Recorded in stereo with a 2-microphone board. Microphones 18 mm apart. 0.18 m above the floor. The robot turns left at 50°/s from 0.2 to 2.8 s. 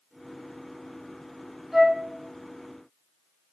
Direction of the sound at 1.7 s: 15° right (ahead or behind).